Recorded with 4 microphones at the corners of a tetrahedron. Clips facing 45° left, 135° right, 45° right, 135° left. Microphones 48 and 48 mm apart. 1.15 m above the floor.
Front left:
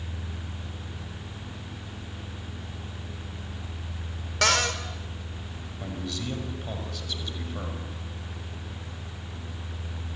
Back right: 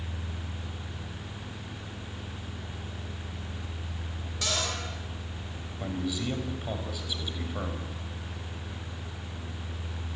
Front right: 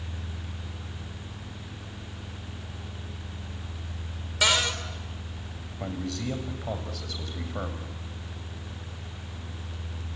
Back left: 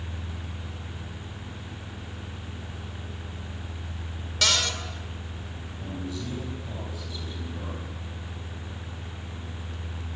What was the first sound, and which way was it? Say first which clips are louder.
A cupboard door: front left 8 dB, front right 2 dB; 30° left.